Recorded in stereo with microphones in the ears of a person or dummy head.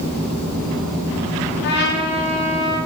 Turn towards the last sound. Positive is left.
turn(degrees=65)  # may be behind; listen again after turning